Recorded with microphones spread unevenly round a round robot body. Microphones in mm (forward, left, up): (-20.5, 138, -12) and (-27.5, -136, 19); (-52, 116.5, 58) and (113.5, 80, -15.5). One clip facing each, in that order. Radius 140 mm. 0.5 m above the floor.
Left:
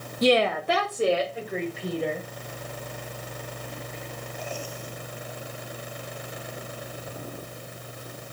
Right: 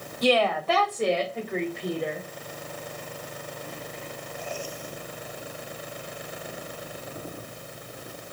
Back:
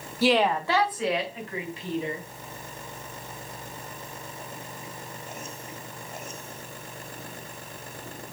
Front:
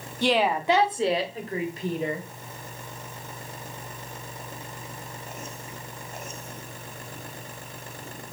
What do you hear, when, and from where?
0.2 s a woman speaking: 50° left, 0.9 m; by 2.2 s straight ahead, 2 m